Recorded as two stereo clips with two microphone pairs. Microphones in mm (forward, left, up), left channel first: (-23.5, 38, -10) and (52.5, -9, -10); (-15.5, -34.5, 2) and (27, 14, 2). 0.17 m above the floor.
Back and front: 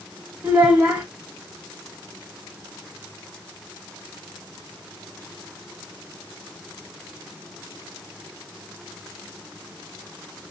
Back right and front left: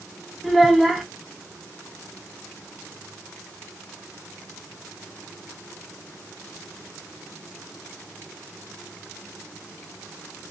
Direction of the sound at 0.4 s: 45° right.